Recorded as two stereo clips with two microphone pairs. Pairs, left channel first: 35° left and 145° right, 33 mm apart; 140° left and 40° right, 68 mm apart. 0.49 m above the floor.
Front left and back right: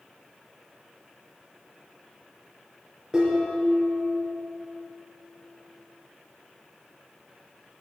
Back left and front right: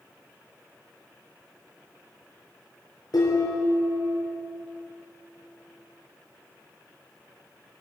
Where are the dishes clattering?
155° left, 5 m.